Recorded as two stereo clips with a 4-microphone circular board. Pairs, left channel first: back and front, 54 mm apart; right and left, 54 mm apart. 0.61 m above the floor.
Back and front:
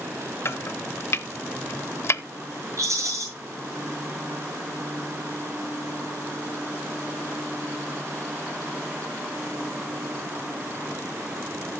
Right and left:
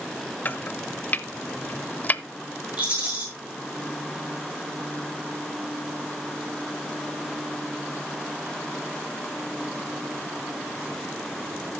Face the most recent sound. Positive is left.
turn(degrees=25)